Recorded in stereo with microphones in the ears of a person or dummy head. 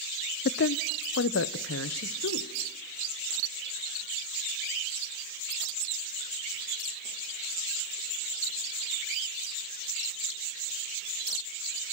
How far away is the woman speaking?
About 0.5 m.